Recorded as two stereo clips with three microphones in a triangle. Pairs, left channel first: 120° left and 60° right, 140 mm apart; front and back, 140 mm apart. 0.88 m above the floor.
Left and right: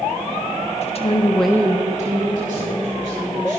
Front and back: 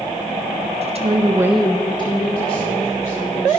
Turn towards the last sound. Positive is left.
turn(degrees=-45)